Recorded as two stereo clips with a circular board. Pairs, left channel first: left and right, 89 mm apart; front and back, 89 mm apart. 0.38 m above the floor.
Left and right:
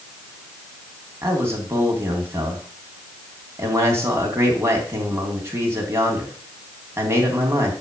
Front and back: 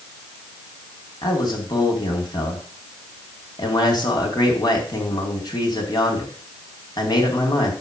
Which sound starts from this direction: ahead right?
A man speaking, at 1.2 s.